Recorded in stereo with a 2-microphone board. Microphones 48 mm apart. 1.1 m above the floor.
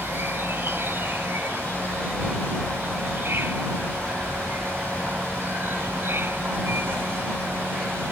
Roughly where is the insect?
Right.